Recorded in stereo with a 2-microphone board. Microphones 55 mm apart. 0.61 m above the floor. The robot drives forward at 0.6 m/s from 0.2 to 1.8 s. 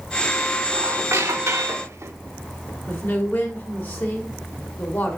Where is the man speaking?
40° left (ahead or behind), 1.9 m.